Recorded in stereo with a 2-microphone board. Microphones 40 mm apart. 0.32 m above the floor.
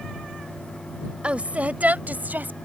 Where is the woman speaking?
30° right (ahead or behind); by 2.6 s 50° right (ahead or behind).